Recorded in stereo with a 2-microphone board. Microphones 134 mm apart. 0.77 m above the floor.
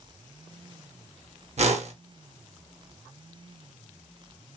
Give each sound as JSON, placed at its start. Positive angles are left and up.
{"t": 1.6, "sound": "a whoosh", "side_deg": -55, "distance_m": 0.6}